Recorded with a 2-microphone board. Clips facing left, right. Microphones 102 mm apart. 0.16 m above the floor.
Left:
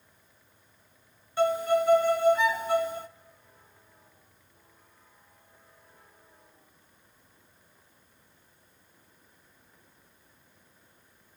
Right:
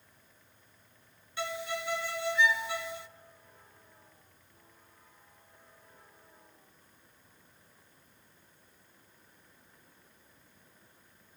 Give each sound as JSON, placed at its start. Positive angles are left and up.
{"t": 1.4, "sound": "a violin", "side_deg": 45, "distance_m": 0.8}